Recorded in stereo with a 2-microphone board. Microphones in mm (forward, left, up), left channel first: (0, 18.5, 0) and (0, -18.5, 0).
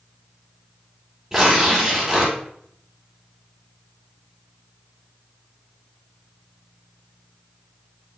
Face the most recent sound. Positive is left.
turn(degrees=-20)  # may be behind; listen again after turning